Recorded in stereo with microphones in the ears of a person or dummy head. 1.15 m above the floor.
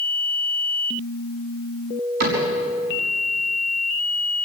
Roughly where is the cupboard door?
Right.